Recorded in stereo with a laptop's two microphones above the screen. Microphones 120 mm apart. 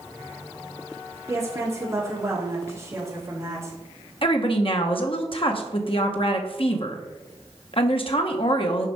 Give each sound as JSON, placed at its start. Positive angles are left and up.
{"t": 1.3, "sound": "a woman speaking", "side_deg": -25, "distance_m": 2.0}
{"t": 4.2, "sound": "a woman speaking", "side_deg": 50, "distance_m": 1.1}